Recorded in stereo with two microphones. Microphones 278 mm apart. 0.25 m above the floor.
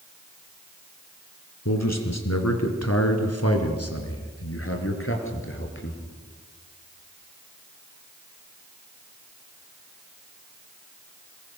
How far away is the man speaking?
About 3.5 m.